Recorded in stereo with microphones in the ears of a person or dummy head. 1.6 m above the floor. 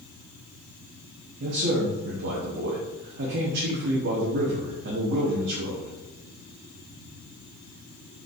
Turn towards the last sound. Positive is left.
turn(degrees=-60)  # may be behind; listen again after turning